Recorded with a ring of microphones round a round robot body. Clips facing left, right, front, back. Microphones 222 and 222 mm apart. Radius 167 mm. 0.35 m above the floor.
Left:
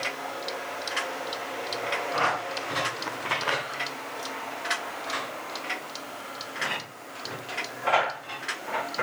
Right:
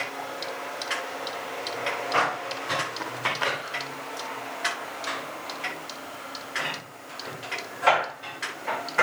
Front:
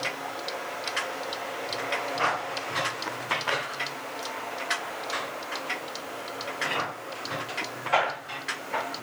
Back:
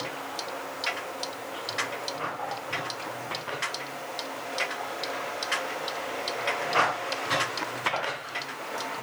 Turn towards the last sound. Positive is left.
No sound to turn to.